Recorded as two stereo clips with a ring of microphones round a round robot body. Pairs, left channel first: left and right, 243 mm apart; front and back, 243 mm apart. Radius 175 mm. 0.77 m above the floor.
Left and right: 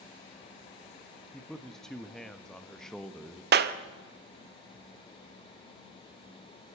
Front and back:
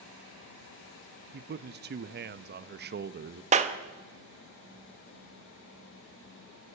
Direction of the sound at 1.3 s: Straight behind.